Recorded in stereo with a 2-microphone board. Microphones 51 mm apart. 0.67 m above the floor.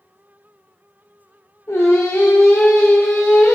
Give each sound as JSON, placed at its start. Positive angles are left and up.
{"t": 1.7, "sound": "singing", "side_deg": 75, "distance_m": 0.8}